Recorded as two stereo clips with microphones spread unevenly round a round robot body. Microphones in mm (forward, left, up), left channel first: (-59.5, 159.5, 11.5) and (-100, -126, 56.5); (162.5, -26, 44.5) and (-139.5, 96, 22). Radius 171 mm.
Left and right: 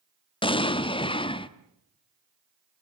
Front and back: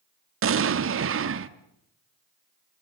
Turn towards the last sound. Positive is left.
turn(degrees=140)